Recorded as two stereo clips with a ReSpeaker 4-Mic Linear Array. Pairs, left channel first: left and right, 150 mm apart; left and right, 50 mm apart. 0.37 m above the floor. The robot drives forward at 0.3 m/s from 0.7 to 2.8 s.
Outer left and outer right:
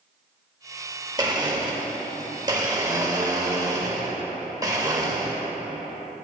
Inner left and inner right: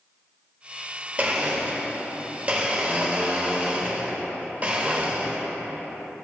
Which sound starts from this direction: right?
A blender, at 1.2 s.